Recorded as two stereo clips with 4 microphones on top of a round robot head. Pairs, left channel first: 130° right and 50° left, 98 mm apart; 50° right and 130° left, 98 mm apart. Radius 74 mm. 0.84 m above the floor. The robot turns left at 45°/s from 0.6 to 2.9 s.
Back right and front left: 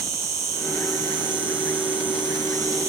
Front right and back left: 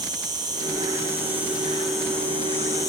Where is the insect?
100° left, 2 m; by 2.9 s straight ahead, 2 m.